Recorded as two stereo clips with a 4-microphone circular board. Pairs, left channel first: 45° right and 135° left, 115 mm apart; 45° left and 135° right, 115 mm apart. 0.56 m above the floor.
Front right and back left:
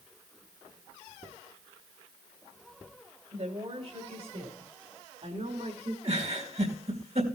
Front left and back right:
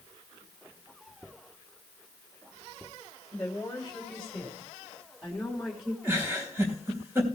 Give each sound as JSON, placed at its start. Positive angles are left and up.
{"t": 3.3, "sound": "a woman speaking", "azimuth_deg": 130, "distance_m": 3.5}
{"t": 6.0, "sound": "a giggle", "azimuth_deg": 155, "distance_m": 4.0}